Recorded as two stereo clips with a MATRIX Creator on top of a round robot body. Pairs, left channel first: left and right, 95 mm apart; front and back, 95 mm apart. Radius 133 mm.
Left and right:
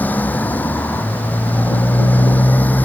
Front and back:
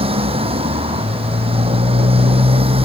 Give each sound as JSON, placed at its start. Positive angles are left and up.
{"t": 0.0, "sound": "a motorcycle", "azimuth_deg": 165}